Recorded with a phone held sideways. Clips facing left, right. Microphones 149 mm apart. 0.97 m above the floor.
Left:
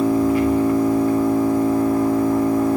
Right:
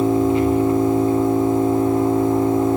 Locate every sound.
0.0 s an engine running: 25° right (ahead or behind), 2.5 m